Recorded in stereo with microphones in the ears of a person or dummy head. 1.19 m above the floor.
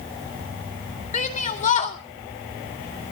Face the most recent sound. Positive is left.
turn(degrees=40)  # may be behind; listen again after turning